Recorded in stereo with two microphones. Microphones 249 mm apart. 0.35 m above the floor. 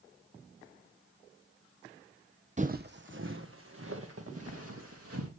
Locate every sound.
2.6 s footsteps: 30° right (ahead or behind), 0.5 m; by 5.3 s 70° right (ahead or behind), 3 m